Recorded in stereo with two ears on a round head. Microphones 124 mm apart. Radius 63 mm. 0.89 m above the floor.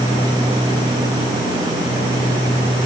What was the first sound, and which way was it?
Only background noise.